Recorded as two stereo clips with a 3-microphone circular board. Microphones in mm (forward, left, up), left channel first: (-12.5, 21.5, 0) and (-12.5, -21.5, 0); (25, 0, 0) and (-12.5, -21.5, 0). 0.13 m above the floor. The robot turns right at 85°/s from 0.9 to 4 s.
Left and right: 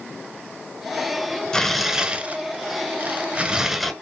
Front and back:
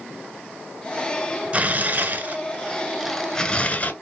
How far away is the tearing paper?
About 0.7 m.